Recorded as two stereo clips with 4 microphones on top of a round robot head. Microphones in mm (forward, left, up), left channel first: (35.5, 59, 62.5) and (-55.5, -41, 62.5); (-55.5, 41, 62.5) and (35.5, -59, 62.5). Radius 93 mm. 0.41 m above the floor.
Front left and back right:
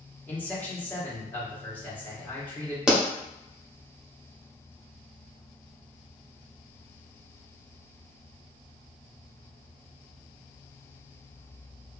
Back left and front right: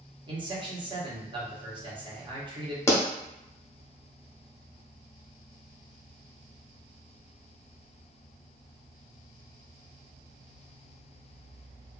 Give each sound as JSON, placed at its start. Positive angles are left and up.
{"t": 0.3, "sound": "a man speaking", "azimuth_deg": -20, "distance_m": 1.0}
{"t": 2.9, "sound": "a pop", "azimuth_deg": 155, "distance_m": 0.8}